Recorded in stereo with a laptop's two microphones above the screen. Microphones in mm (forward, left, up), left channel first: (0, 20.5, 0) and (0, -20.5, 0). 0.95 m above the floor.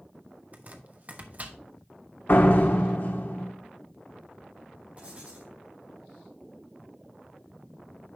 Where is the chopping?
40° right (ahead or behind), 1.1 m.